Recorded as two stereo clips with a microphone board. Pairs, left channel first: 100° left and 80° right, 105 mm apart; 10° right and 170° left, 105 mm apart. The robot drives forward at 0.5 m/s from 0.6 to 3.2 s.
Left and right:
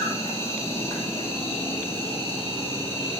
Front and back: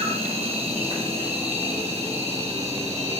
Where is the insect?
160° left, 4 m; by 3.2 s 165° left, 5.5 m.